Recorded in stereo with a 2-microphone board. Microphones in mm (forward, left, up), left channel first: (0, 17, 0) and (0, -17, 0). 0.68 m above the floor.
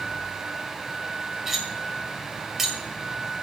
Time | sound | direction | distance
1.5 | cutlery clinking | 10° right (ahead or behind) | 1.8 m